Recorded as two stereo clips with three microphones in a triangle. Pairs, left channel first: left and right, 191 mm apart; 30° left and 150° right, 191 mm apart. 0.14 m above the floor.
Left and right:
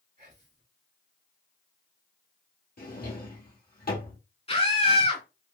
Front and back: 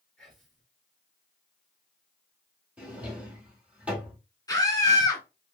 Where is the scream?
80° left, 1.2 m.